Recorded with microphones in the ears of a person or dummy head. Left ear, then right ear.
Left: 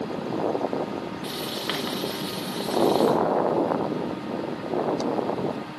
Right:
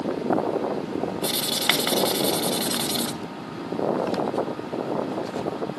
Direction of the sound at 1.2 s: 30° right (ahead or behind).